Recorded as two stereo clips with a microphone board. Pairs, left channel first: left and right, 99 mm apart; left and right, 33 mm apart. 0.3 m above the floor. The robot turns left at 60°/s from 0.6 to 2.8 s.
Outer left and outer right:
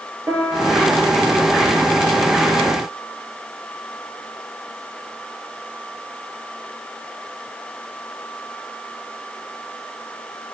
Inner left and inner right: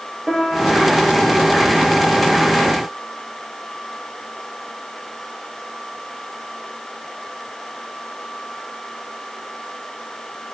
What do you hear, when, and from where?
0.3 s a piano: 150° right, 3.5 m; by 1.1 s straight behind, 3.5 m